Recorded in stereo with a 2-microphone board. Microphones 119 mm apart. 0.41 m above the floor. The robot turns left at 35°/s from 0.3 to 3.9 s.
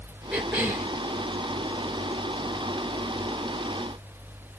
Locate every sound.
0.3 s a cough: 5° right (ahead or behind), 1.8 m; by 0.9 s 15° right (ahead or behind), 1.8 m